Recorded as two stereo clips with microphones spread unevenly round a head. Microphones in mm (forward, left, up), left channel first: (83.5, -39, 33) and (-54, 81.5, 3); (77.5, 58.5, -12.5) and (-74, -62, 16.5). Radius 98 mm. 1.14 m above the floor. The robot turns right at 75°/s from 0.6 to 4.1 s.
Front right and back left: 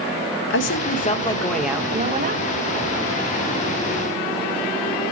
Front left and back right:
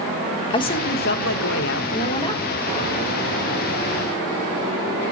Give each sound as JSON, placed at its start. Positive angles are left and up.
{"t": 0.5, "sound": "a woman speaking", "azimuth_deg": -25, "distance_m": 1.5}